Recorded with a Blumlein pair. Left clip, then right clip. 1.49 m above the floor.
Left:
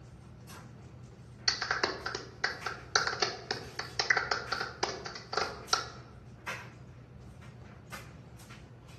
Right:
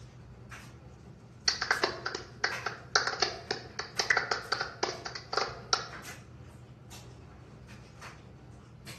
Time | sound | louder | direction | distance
1.5 | a clap | right 2 dB | 10° right | 0.8 m